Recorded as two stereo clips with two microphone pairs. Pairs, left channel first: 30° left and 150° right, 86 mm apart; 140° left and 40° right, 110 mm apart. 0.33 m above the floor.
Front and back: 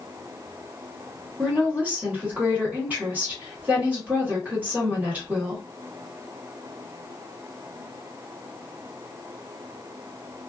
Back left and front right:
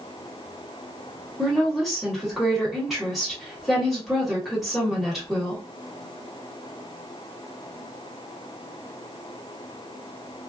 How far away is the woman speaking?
About 1.4 m.